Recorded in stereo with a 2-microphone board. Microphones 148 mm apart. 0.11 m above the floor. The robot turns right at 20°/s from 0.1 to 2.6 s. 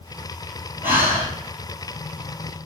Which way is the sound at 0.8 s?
15° right (ahead or behind).